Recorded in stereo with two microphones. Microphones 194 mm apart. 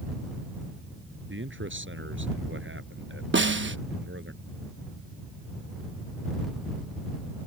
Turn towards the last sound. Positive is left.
turn(degrees=-75)  # may be behind; listen again after turning